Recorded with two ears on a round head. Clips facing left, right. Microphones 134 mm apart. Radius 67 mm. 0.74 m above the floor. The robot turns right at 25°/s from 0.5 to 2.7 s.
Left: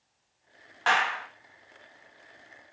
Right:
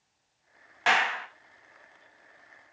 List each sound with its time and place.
0.9 s a clap: 20° right (ahead or behind), 0.8 m; by 1.3 s 25° right (ahead or behind), 0.8 m